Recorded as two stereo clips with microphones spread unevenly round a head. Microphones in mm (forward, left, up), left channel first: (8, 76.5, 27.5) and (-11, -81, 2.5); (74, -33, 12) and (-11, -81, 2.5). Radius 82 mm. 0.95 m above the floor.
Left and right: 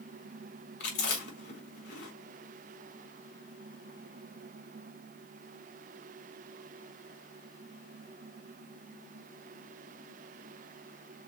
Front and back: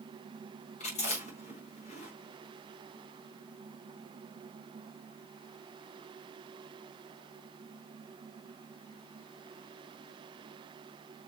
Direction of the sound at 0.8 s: 55° left.